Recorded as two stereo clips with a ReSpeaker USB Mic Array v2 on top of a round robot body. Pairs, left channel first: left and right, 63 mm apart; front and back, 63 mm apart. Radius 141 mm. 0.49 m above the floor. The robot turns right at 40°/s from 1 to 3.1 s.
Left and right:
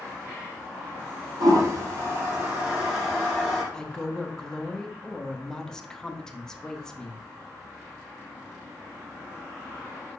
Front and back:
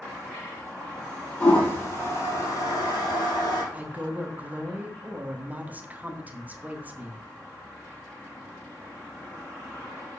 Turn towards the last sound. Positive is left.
turn(degrees=160)